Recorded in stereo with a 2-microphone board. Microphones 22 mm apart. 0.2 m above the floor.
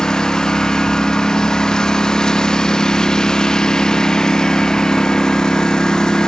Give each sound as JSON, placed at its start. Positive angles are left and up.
{"t": 0.0, "sound": "a lawn mower", "side_deg": 30}